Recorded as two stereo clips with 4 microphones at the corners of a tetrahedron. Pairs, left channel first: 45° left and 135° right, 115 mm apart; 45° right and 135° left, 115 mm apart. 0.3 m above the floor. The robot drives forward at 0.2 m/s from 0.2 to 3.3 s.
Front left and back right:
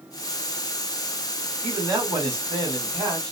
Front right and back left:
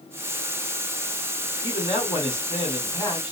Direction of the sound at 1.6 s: 85° right.